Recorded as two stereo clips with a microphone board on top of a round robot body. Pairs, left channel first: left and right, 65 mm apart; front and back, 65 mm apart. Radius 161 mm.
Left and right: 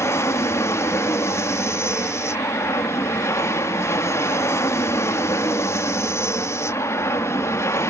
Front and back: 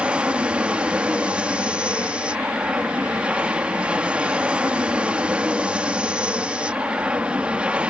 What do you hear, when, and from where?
0.0 s an aircraft: 110° left